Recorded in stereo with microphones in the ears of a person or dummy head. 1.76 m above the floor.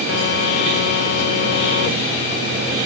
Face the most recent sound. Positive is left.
turn(degrees=65)  # may be behind; listen again after turning